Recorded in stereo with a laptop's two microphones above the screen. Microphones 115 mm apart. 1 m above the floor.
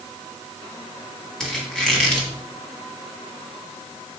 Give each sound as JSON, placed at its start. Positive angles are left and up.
{"t": 1.4, "sound": "a squeak", "side_deg": 5, "distance_m": 1.3}